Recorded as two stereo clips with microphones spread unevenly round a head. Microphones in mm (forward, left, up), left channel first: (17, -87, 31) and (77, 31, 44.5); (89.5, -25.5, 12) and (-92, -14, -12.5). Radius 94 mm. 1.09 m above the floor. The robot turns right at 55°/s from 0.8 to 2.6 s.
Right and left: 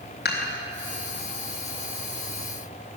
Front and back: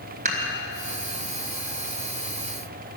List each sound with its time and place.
0.2 s dishes clattering: 130° right, 2.5 m